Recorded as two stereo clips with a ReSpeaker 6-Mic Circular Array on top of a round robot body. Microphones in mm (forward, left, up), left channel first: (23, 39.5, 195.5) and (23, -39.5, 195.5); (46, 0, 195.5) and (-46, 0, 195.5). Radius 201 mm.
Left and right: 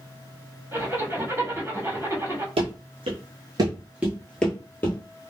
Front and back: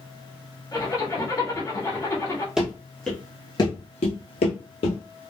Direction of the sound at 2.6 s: 95° right.